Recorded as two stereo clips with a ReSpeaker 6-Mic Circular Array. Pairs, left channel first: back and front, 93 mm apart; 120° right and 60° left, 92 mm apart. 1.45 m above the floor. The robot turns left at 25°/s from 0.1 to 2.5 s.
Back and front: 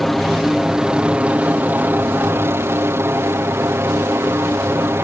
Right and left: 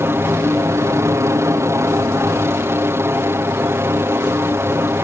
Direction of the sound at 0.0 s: 95° left.